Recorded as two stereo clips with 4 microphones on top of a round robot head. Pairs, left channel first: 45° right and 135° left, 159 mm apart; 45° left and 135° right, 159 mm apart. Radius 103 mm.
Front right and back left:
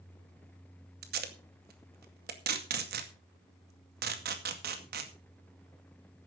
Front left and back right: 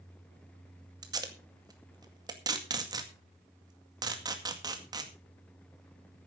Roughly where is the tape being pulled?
Behind.